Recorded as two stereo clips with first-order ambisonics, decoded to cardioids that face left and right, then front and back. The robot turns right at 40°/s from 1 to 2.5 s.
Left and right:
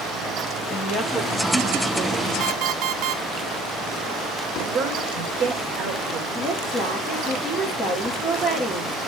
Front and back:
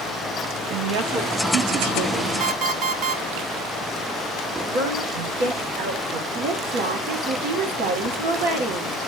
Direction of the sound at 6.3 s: Straight behind.